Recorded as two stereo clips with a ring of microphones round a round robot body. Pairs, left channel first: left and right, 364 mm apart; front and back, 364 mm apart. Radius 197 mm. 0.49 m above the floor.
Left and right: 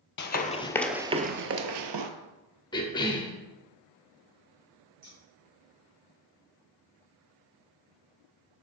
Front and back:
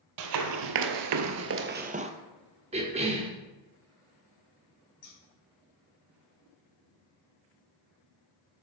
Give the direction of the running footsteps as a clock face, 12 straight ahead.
7 o'clock.